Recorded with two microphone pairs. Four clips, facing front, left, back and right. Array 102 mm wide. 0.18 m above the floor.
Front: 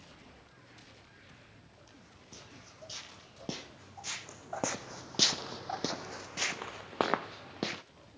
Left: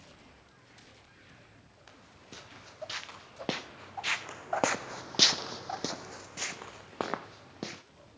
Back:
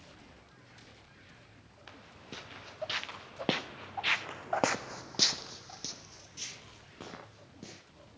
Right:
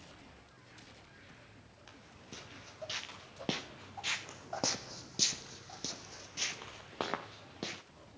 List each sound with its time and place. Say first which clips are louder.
1.9 s footsteps: left 1 dB, back 9 dB; 155° left, 2.5 m; by 7.8 s straight ahead, 1.6 m